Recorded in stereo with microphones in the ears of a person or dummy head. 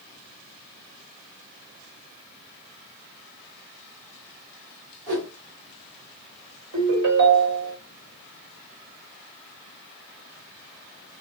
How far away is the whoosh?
About 1.7 m.